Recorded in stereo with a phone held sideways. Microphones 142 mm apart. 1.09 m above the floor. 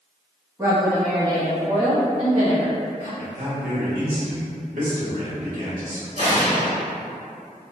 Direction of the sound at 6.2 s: 55° left (ahead or behind).